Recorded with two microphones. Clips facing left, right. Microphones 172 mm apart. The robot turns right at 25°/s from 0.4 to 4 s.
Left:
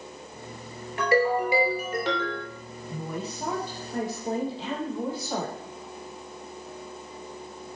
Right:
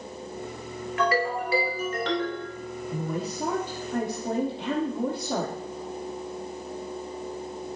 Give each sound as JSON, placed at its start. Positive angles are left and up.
{"t": 1.0, "sound": "a ringtone", "azimuth_deg": 145, "distance_m": 2.0}
{"t": 2.9, "sound": "a woman speaking", "side_deg": -30, "distance_m": 4.0}